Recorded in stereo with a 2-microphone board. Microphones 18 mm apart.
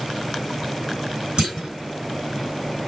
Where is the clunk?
45° right (ahead or behind), 2.5 m.